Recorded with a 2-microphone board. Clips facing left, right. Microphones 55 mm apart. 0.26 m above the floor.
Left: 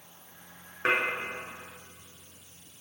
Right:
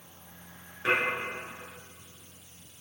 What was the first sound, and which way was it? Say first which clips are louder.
Dishes clattering: left 1 dB; 50° left (ahead or behind).